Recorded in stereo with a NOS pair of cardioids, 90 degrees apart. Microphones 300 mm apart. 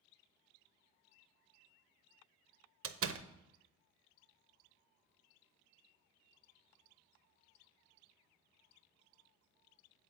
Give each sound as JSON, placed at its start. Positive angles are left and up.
{"t": 2.8, "sound": "a door slam", "azimuth_deg": -50, "distance_m": 0.7}